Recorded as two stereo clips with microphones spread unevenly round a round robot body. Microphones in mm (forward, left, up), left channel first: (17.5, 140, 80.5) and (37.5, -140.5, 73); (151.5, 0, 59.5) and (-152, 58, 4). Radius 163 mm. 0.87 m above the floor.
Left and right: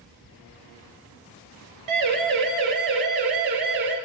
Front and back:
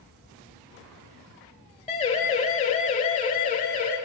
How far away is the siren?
About 5 m.